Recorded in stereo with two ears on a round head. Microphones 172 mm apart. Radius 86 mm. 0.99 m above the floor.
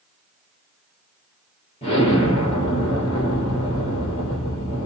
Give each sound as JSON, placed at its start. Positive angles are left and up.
{"t": 1.8, "sound": "an explosion", "side_deg": 30, "distance_m": 3.0}